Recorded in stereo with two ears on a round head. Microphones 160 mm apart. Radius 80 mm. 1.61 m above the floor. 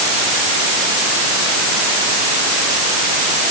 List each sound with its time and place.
Only background noise.